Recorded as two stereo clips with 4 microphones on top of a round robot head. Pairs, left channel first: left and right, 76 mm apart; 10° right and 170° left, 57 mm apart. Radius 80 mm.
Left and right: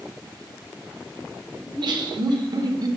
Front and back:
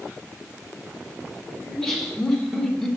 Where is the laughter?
90° right, 2.5 m; by 2.9 s 95° right, 1.6 m.